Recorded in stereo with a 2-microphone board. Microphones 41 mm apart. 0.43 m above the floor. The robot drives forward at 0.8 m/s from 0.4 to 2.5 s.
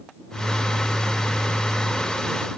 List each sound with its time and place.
Only background noise.